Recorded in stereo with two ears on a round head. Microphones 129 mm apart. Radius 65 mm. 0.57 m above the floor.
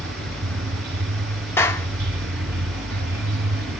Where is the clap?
15° left (ahead or behind), 0.8 m.